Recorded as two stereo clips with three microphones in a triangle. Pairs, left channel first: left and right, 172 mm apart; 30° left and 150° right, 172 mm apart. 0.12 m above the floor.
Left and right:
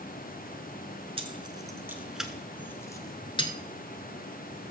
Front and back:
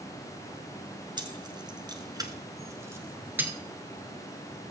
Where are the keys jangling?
110° right, 1.1 m; by 3.5 s 135° left, 1.3 m.